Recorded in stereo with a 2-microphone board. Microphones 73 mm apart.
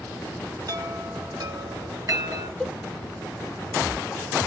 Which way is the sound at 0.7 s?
50° right (ahead or behind).